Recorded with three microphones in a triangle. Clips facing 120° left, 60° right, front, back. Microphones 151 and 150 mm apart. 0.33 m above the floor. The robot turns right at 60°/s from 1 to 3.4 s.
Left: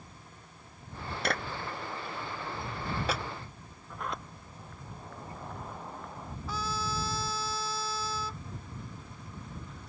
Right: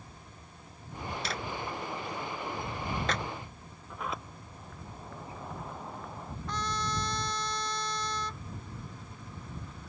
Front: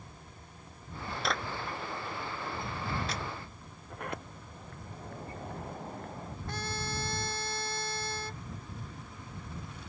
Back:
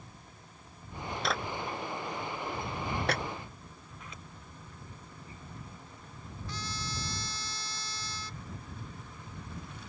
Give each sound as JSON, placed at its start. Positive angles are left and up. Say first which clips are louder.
{"t": 1.2, "sound": "a clap", "louder": "left 5 dB, back 1 dB", "azimuth_deg": 90}
{"t": 3.9, "sound": "a sliding door", "louder": "even, front 13 dB", "azimuth_deg": 25}
{"t": 6.5, "sound": "a trumpet", "louder": "even, front 3 dB", "azimuth_deg": 35}